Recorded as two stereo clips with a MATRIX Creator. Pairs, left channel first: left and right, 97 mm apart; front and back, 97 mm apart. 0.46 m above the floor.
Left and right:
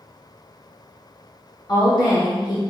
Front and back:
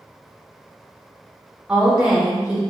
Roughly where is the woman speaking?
Left.